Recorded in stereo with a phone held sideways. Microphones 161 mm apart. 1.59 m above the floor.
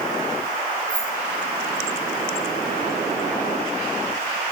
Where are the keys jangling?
50° left (ahead or behind), 1.6 m.